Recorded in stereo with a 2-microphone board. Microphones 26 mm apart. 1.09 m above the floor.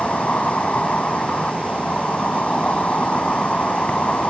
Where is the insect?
55° left (ahead or behind).